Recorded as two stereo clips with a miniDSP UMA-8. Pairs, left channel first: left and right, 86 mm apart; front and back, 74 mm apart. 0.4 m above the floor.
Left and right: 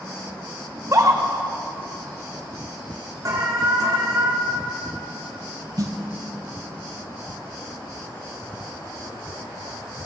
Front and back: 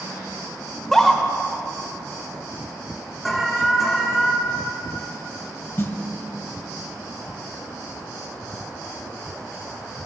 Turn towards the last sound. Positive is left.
turn(degrees=-50)